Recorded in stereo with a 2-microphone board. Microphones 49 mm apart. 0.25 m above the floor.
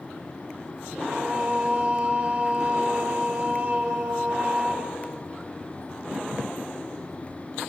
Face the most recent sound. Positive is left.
turn(degrees=-25)  # may be behind; listen again after turning